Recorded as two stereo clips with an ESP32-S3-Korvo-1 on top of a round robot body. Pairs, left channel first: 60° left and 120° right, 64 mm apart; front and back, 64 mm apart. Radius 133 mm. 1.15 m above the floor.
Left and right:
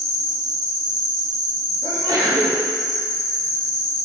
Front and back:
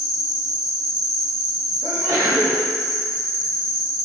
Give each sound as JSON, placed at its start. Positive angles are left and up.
{"t": 0.0, "sound": "an insect", "azimuth_deg": 90, "distance_m": 1.9}
{"t": 1.8, "sound": "a sneeze", "azimuth_deg": -140, "distance_m": 2.0}